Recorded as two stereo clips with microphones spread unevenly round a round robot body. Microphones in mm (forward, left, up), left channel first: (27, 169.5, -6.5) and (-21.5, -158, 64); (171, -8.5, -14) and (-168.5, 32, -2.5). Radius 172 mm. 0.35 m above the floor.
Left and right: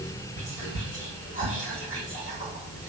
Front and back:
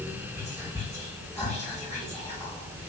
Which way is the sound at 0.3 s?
90° left.